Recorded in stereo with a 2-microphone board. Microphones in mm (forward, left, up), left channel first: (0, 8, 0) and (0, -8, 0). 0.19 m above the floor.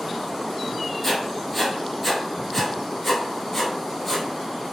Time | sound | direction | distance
1.0 | writing | 10° left (ahead or behind) | 1.8 m